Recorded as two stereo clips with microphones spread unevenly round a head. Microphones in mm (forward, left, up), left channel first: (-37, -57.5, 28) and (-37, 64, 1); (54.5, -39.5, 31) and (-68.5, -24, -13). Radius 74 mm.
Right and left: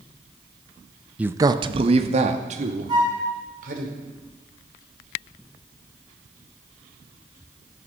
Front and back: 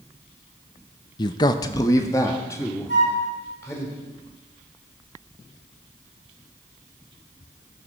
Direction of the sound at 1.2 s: 55° left.